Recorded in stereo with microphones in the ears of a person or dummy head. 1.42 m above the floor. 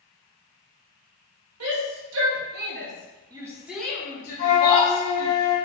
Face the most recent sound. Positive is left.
turn(degrees=35)  # may be behind; listen again after turning